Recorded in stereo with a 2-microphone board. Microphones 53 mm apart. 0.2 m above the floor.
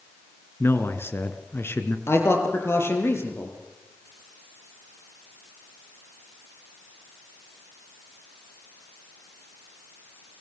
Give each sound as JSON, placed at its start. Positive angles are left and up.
{"t": 0.6, "sound": "a man speaking", "side_deg": 45, "distance_m": 3.0}
{"t": 2.1, "sound": "a man speaking", "side_deg": 50, "distance_m": 7.0}